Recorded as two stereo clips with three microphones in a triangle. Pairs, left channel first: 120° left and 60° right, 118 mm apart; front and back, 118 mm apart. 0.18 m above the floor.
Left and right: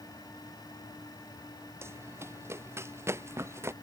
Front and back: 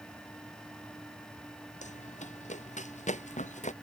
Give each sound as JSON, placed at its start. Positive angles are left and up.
{"t": 1.8, "sound": "running footsteps", "azimuth_deg": 10}